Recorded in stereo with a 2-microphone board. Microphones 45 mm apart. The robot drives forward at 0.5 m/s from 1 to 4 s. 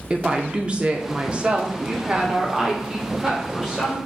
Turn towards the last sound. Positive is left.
turn(degrees=-10)  # may be behind; listen again after turning